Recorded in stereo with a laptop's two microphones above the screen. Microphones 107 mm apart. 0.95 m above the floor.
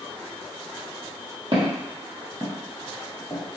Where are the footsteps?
50° right (ahead or behind), 1.5 m; by 3.4 s 25° left (ahead or behind), 1.0 m.